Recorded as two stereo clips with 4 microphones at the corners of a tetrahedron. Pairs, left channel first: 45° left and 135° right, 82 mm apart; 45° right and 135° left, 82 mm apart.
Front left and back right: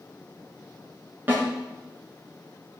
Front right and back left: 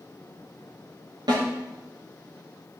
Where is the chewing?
I don't hear chewing.